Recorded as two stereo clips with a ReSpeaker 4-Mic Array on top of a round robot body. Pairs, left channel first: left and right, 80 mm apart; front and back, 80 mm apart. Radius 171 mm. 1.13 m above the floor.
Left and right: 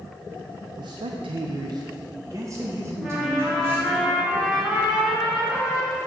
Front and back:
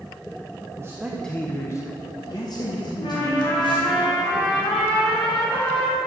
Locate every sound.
0.8 s a man speaking: 125° right, 0.5 m; by 4.0 s 25° right, 2.5 m
3.0 s a trumpet: 5° right, 1.9 m